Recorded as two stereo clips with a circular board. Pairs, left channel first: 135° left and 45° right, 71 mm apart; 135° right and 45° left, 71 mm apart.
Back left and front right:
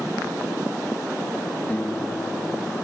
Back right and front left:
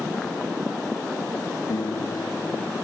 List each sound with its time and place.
1.7 s a guitar: 160° right